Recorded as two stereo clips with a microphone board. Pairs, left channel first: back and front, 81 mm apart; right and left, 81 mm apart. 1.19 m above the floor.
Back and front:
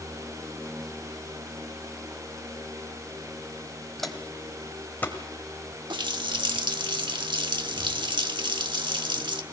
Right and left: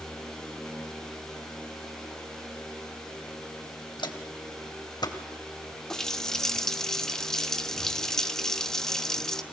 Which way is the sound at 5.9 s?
5° right.